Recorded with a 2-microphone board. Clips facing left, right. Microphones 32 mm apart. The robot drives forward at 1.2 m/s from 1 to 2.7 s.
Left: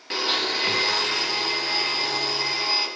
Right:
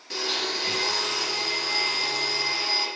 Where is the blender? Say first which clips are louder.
Left 4 dB; 40° left (ahead or behind), 1.7 m; by 2.9 s 20° left (ahead or behind), 3.5 m.